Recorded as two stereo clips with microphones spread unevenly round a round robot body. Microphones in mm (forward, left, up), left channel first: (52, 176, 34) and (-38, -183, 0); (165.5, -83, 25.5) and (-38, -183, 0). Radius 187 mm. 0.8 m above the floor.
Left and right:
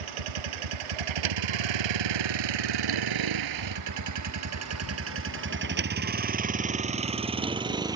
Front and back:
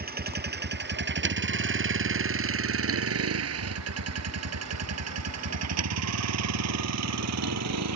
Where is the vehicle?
105° right; by 8.0 s 175° left.